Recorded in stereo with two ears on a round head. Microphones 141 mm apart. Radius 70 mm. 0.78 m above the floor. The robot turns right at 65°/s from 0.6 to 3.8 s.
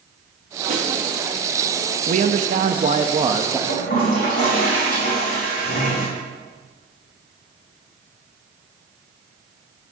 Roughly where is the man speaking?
Behind right.